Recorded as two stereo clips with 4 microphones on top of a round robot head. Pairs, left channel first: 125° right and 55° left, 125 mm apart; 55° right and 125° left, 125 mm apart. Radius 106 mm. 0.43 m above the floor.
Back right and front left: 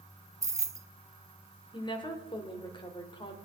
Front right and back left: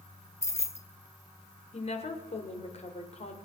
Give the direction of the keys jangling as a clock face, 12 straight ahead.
12 o'clock.